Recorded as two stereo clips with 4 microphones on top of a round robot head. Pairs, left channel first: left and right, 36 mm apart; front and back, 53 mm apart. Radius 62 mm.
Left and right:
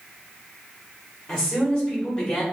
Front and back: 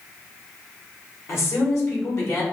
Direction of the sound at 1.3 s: 20° left.